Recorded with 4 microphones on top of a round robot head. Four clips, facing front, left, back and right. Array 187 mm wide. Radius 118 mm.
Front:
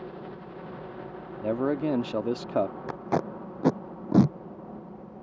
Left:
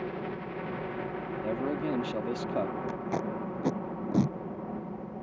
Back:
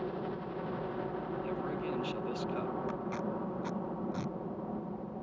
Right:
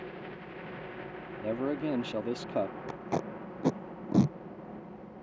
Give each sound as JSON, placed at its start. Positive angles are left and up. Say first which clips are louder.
{"t": 0.0, "sound": "a helicopter", "louder": "left 7 dB, back 3 dB", "azimuth_deg": 110}
{"t": 1.4, "sound": "a man speaking", "louder": "right 1 dB, front 15 dB", "azimuth_deg": -5}
{"t": 2.9, "sound": "tape being pulled", "louder": "left 2 dB, front 7 dB", "azimuth_deg": -5}